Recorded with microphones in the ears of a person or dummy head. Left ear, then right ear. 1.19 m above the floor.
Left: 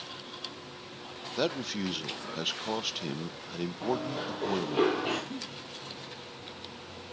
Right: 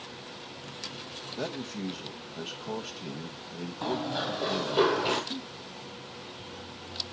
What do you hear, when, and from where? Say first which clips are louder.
1.4 s a man speaking: left 6 dB; 80° left, 0.7 m
3.8 s running footsteps: right 3 dB; 25° right (ahead or behind), 2 m; by 5.2 s 5° right (ahead or behind), 2.5 m
5.3 s a giggle: right 3 dB; 35° left (ahead or behind), 0.9 m